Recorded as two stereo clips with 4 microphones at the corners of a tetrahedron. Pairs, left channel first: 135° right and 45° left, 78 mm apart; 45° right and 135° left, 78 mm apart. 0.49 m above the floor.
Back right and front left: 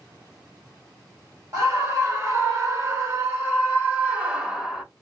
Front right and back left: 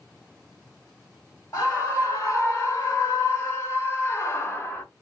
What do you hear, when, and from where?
1.5 s a scream: straight ahead, 2 m; by 4.8 s 40° right, 0.9 m